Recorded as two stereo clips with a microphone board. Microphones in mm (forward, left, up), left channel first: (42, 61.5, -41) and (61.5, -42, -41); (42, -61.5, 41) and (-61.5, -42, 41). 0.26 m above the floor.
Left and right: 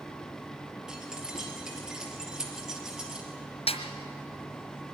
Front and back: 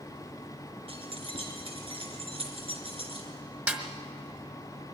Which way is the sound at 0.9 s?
160° right.